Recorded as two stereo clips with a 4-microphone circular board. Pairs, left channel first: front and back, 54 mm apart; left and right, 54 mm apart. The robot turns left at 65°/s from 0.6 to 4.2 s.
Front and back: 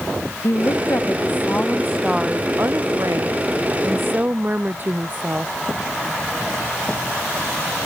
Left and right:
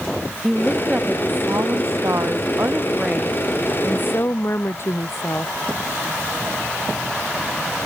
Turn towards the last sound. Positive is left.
turn(degrees=125)